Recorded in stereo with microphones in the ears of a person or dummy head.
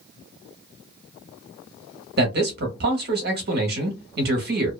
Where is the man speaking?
45° right (ahead or behind), 0.8 m.